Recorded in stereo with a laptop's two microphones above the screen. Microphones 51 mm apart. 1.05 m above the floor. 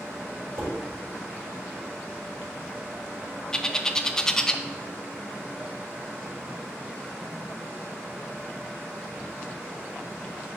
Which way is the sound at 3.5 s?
15° left (ahead or behind).